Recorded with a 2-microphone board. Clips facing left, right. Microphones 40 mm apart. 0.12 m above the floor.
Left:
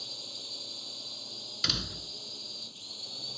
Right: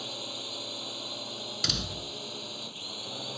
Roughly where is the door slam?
Centre.